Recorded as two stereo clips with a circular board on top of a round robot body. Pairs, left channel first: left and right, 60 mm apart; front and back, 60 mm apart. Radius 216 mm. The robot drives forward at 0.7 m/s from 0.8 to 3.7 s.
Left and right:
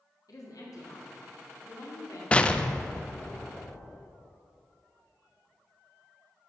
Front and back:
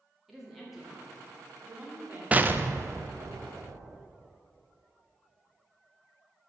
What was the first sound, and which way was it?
A woman speaking, 95° left.